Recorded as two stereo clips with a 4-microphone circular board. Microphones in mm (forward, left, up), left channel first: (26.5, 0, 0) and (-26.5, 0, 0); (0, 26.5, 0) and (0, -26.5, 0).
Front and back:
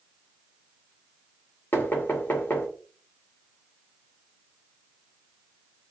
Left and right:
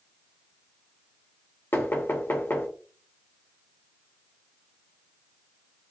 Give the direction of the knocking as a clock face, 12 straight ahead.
10 o'clock.